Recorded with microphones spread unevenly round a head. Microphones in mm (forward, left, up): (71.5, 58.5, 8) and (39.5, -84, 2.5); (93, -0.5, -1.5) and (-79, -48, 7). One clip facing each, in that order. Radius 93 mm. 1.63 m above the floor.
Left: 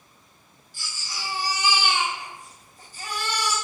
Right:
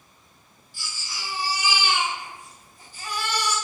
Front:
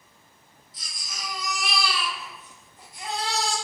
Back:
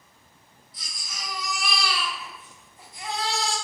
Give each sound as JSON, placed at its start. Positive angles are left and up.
{"t": 0.7, "sound": "a baby crying", "azimuth_deg": 80, "distance_m": 1.6}